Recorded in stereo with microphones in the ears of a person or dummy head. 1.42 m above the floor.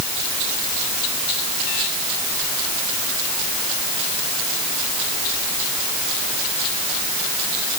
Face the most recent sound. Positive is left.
No sound to turn to.